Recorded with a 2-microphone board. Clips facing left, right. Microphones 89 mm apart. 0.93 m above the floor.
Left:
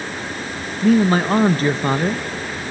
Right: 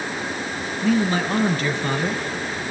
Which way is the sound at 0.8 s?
40° left (ahead or behind).